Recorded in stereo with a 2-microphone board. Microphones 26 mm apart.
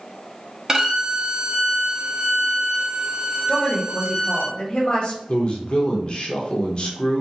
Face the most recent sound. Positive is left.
turn(degrees=35)  # may be behind; listen again after turning